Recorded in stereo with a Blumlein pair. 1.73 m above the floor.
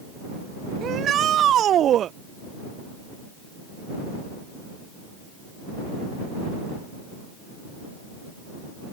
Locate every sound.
0.8 s a shout: 30° right